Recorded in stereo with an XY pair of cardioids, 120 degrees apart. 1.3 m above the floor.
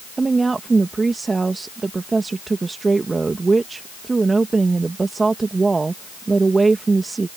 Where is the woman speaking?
20° right.